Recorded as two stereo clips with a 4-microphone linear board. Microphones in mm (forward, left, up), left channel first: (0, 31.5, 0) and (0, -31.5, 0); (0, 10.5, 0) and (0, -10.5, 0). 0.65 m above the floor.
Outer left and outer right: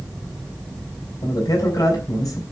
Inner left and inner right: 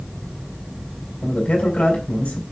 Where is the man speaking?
55° left (ahead or behind), 5.5 m.